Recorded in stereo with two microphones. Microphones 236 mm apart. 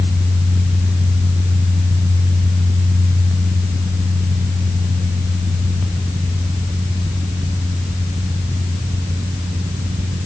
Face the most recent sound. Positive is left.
No sound to turn to.